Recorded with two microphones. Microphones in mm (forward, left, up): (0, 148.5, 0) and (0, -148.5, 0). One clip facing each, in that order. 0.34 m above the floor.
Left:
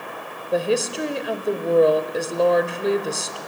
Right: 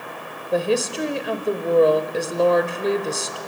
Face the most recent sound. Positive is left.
turn(degrees=0)  # may be behind; listen again after turning